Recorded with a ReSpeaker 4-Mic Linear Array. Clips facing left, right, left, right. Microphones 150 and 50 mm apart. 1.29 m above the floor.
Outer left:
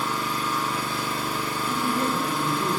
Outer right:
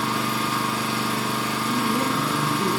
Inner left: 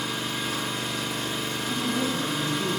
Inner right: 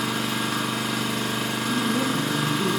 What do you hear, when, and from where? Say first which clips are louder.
0.0 s an engine running: outer right 3 dB, inner right 4 dB; 80° right, 1.2 m
1.7 s a woman speaking: outer right 2 dB, inner right 3 dB; 40° right (ahead or behind), 1.5 m